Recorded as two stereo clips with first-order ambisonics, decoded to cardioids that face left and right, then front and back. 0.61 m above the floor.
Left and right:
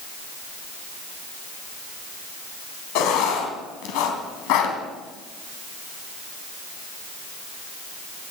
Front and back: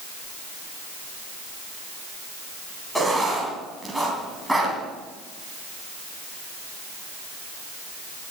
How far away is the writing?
About 3 m.